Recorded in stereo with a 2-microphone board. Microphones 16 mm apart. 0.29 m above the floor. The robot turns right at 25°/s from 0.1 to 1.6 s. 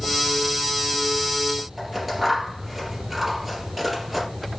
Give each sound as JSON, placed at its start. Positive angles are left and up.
{"t": 1.8, "sound": "scissors", "side_deg": -5, "distance_m": 8.0}